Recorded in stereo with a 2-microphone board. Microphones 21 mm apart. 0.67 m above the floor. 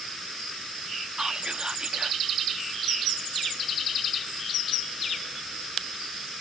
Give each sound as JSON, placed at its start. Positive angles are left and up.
{"t": 1.2, "sound": "whispering", "side_deg": -40}